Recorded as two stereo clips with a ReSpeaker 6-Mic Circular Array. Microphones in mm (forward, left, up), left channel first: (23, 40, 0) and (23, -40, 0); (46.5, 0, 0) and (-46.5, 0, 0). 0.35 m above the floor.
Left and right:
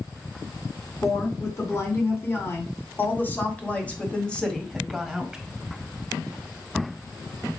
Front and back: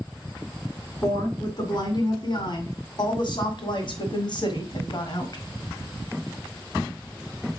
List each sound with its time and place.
1.0 s a woman speaking: 40° left, 3.5 m; by 5.4 s 5° right, 1.8 m